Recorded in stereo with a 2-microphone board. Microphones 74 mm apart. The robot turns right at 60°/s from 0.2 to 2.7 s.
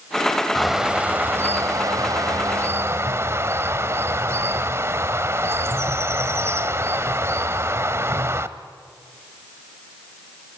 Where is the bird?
175° left, 1.0 m; by 8.6 s 55° right, 1.0 m.